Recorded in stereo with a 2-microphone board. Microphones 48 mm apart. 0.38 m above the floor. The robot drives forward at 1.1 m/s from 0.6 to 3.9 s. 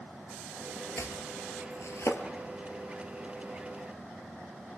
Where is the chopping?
80° left, 2.5 m; by 2.2 s 70° left (ahead or behind), 3 m.